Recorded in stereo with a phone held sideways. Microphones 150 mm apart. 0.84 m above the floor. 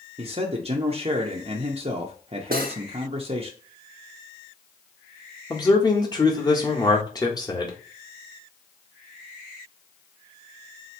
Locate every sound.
0.2 s a man speaking: 40° right (ahead or behind), 0.6 m
2.5 s cutlery clinking: 70° right (ahead or behind), 0.7 m
5.5 s a man speaking: 25° left (ahead or behind), 1.2 m